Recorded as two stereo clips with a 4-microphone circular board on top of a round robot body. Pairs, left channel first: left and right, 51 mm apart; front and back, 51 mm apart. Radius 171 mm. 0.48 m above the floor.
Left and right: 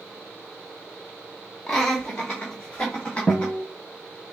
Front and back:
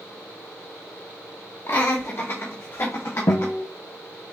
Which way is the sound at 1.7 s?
10° left.